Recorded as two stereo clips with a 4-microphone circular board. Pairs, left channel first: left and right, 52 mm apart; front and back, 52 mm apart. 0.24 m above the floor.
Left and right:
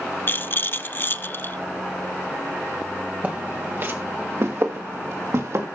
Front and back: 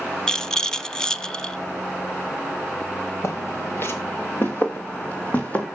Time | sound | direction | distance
0.3 | a rattle | 70° left | 0.8 m
3.2 | footsteps | 30° right | 2.5 m